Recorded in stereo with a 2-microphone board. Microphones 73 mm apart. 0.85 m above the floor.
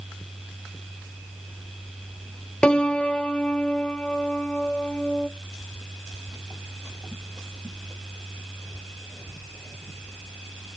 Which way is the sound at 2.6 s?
15° left (ahead or behind).